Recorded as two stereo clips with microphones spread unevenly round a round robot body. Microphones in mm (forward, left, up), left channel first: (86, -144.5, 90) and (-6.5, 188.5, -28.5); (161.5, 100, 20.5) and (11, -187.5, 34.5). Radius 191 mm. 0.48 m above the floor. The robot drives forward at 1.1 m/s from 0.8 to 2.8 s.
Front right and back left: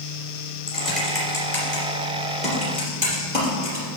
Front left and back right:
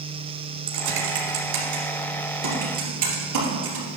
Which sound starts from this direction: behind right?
Typing on a keyboard, at 0.7 s.